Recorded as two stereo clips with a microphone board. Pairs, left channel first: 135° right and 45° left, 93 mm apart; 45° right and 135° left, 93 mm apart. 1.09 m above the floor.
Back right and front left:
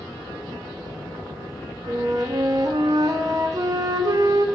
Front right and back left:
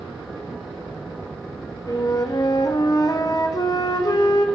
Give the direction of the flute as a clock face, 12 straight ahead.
12 o'clock.